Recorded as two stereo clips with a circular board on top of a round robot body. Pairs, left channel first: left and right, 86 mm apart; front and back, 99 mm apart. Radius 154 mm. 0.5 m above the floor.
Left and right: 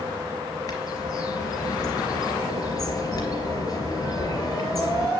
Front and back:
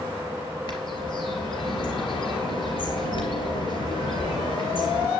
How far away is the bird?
About 3 m.